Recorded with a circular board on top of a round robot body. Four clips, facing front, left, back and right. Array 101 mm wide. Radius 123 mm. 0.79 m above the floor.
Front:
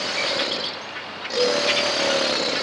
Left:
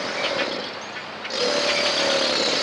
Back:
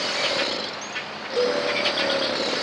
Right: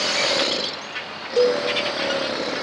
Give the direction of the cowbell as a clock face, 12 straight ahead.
3 o'clock.